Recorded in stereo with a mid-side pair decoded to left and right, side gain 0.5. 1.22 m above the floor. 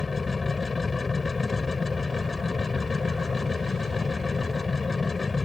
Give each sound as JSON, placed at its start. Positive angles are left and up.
{"t": 0.0, "sound": "a machine running", "azimuth_deg": 25}